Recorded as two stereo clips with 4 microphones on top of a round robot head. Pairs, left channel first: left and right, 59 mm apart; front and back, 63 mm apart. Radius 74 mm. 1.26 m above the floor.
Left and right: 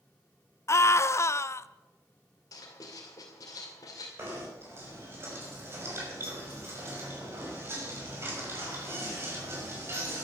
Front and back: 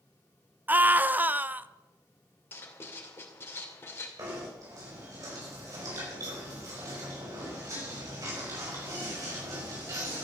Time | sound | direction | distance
0.7 | a scream | 120° left | 0.7 m
2.5 | writing | 50° left | 2.5 m
4.2 | knocking | 140° right | 6 m